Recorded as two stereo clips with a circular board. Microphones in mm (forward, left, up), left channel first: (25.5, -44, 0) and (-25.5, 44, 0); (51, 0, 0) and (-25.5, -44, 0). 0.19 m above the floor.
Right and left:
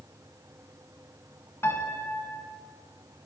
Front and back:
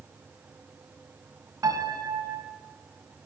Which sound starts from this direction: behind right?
A piano, at 1.6 s.